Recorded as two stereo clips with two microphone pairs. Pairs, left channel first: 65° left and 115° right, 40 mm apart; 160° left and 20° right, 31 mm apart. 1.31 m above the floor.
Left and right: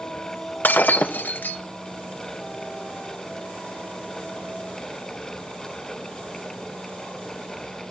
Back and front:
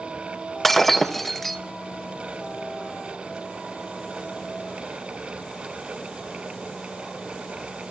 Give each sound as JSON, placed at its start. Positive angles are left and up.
{"t": 0.6, "sound": "breaking glass", "azimuth_deg": 75, "distance_m": 0.7}